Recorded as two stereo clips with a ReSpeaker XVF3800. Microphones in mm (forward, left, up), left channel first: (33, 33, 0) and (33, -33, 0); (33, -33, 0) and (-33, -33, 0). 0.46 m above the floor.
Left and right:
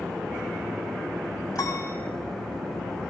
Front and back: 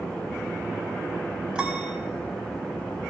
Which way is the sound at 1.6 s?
105° left.